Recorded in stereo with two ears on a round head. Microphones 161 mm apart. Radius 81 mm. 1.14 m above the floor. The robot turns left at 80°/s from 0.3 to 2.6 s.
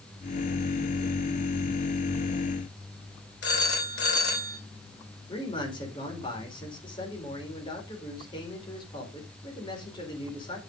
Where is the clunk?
No clunk in this recording.